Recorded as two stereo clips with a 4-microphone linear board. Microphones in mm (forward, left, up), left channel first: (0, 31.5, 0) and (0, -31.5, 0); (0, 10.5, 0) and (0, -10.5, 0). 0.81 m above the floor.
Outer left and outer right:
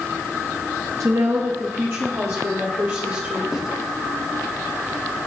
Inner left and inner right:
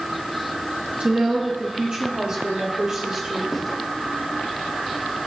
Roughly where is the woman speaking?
Right.